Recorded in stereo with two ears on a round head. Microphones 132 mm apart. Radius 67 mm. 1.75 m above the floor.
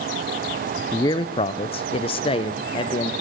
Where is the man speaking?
20° left (ahead or behind), 0.6 m; by 3.1 s 35° left (ahead or behind), 1.6 m.